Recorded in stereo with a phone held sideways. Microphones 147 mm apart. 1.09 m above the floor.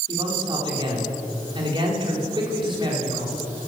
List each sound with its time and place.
0.1 s a man speaking: 35° right (ahead or behind), 3.5 m